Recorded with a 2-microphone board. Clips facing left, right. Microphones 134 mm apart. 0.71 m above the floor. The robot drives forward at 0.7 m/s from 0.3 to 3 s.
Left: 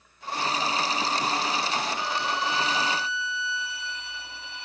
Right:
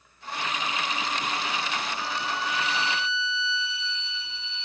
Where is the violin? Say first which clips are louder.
Left 2 dB; 80° left; by 4.7 s 55° left (ahead or behind).